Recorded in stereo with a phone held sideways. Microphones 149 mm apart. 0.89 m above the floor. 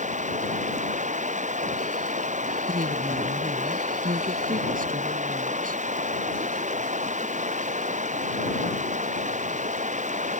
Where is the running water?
55° right (ahead or behind).